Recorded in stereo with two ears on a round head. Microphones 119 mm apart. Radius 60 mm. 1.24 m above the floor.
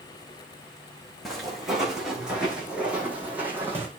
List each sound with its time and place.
1.2 s footsteps: centre (ahead or behind), 4.5 m; by 3.9 s 15° right (ahead or behind), 3.5 m